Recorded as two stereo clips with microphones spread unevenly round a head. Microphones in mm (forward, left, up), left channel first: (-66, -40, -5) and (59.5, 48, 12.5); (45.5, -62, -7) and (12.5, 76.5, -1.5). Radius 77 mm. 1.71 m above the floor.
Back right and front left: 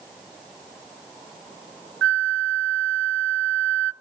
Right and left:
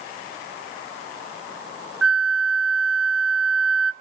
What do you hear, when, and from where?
2.0 s a flute: 20° left, 0.6 m